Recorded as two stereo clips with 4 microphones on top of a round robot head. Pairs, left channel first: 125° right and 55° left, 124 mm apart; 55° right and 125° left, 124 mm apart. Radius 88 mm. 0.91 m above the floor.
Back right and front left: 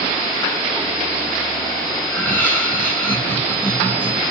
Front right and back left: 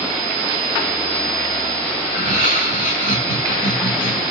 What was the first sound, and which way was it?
Laughter, 50° right.